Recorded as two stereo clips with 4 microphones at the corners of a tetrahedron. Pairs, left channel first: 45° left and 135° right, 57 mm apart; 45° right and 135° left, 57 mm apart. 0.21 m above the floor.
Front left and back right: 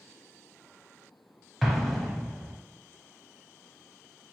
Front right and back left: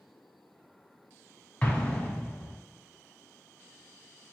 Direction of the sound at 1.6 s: 50° right.